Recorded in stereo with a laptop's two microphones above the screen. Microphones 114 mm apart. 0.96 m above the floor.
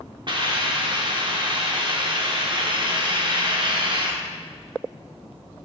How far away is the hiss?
About 0.7 m.